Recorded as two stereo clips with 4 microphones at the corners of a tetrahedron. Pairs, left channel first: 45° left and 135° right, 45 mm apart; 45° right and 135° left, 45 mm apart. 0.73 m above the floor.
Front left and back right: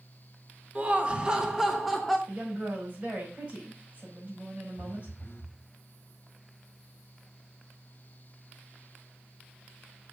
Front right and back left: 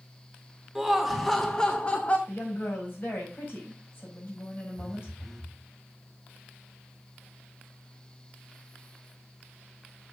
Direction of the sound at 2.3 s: 80° right.